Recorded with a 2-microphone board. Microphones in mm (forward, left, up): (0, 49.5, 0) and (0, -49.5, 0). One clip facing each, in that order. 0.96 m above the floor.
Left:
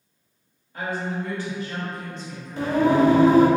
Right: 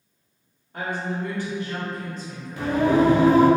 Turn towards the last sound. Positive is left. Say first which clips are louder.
# left 1 dB
turn(degrees=30)  # may be behind; listen again after turning